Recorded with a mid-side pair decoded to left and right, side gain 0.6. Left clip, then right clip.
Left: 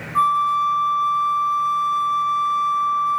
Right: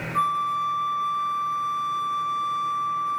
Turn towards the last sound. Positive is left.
turn(degrees=25)